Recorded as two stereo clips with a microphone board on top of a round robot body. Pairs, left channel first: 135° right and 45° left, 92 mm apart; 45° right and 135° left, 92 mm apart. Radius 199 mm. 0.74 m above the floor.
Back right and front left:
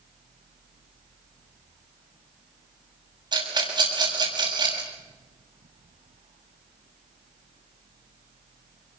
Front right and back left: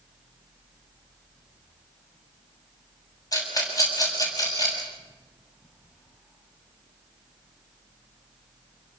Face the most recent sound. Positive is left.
turn(degrees=5)